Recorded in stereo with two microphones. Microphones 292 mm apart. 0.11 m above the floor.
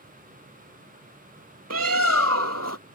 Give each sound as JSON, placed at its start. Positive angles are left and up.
{"t": 1.7, "sound": "a bird", "side_deg": -60}